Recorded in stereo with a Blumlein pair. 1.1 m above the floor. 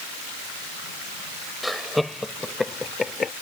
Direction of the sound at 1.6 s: Straight ahead.